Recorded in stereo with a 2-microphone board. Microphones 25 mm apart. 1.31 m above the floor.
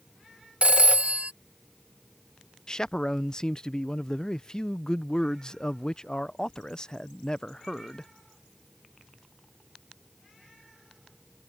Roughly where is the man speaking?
Left.